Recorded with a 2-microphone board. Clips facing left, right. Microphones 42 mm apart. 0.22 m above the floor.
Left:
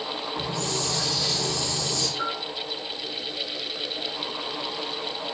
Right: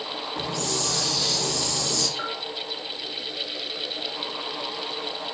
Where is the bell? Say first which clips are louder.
Left 2 dB; 30° right (ahead or behind), 4 m.